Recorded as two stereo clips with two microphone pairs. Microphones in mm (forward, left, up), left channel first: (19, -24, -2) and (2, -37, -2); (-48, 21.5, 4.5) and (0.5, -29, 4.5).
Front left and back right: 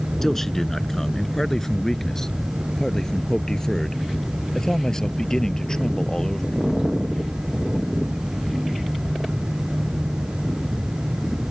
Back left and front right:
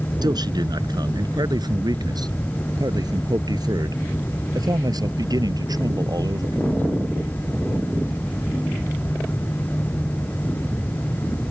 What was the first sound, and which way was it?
A man speaking, 40° right.